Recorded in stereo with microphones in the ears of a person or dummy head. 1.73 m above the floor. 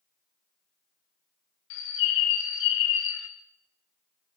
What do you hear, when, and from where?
1.7 s a bird: 65° left (ahead or behind), 0.5 m